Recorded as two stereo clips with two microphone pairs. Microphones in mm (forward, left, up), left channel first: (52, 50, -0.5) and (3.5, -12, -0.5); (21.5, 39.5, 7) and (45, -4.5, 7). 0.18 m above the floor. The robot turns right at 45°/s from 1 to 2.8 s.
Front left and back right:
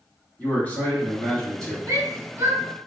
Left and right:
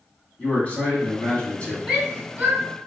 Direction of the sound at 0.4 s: 95° left.